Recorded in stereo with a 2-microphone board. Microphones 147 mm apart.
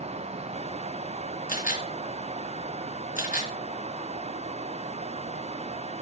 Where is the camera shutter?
65° left (ahead or behind), 4 m.